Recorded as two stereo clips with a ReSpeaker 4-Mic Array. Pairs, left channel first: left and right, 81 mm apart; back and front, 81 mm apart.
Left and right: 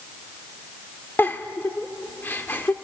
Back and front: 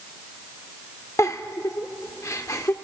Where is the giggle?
145° left, 1.1 m.